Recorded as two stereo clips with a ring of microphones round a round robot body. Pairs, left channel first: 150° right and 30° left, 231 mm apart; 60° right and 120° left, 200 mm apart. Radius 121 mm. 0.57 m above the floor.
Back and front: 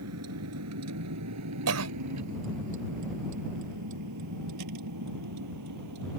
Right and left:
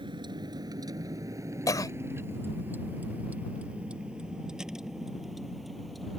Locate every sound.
0.0 s a vehicle: 55° left; by 6.2 s 30° left
1.7 s a cough: 15° left